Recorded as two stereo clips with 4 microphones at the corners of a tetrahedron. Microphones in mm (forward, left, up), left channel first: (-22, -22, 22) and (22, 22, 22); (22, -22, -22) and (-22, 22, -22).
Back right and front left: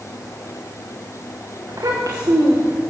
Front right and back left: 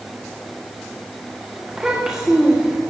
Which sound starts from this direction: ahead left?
A child speaking, at 1.7 s.